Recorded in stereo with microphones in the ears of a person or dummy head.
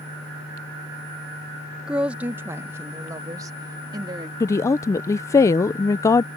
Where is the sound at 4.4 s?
10° left (ahead or behind).